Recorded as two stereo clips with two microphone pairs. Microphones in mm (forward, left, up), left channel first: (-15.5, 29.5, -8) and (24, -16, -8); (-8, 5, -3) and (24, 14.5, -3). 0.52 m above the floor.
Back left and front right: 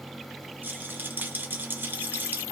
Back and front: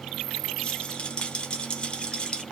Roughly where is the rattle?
Right.